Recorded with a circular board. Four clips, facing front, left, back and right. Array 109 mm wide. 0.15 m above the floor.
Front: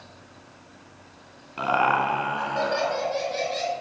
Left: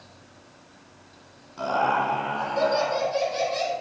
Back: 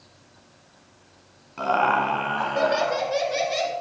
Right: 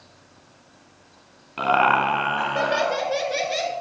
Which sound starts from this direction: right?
Laughter, at 1.6 s.